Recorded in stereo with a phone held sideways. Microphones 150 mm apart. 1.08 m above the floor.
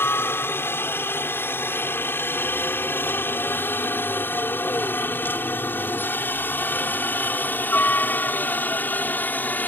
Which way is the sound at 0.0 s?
15° left (ahead or behind).